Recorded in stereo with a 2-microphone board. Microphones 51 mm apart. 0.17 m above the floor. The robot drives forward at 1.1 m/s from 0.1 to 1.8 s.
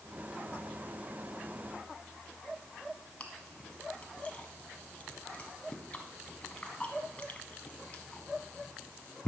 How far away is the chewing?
About 1.0 m.